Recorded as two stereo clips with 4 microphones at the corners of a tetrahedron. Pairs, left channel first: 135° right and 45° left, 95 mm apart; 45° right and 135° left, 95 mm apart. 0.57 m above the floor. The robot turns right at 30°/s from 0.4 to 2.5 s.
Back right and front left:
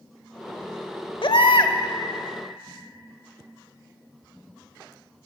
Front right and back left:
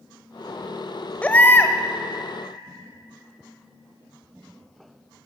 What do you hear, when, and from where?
1.2 s a baby crying: 120° right, 0.8 m; by 1.8 s 105° right, 0.8 m